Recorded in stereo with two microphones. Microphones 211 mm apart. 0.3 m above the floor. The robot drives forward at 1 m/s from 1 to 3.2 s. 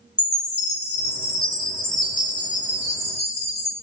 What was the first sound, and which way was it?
A chime, 55° left (ahead or behind).